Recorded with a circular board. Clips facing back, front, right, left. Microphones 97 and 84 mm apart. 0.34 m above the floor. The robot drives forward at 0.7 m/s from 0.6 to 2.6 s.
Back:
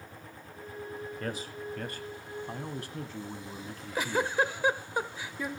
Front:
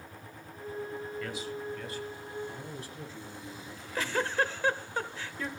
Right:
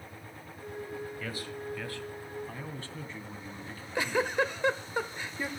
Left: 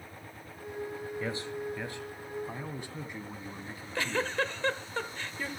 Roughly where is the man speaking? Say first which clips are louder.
Even, left 3 dB; behind left.